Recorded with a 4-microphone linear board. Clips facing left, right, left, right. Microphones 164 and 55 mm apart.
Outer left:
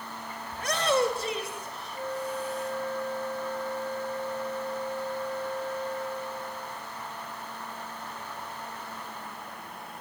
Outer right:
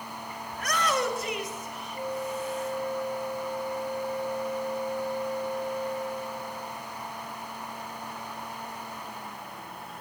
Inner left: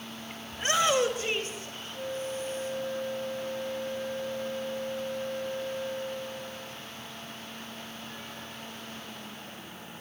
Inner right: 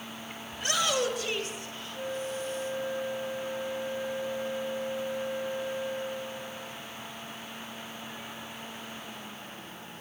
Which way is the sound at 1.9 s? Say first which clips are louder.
Outer right 1 dB, even; 15° right (ahead or behind).